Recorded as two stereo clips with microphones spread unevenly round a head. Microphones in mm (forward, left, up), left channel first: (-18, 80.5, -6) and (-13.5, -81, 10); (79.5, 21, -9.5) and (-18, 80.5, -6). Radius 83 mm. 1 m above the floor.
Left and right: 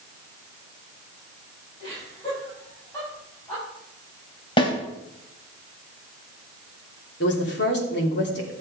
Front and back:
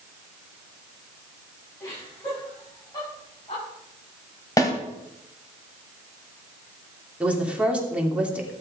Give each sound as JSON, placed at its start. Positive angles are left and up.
{"t": 1.8, "sound": "laughter", "azimuth_deg": 30, "distance_m": 8.5}
{"t": 4.6, "sound": "a snare drum", "azimuth_deg": 30, "distance_m": 2.5}
{"t": 7.2, "sound": "a woman speaking", "azimuth_deg": 70, "distance_m": 3.0}